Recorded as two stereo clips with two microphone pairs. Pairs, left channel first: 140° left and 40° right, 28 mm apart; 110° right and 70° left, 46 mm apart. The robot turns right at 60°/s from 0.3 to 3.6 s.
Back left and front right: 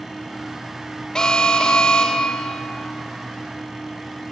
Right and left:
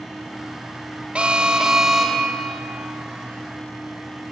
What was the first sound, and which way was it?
An alarm, 105° left.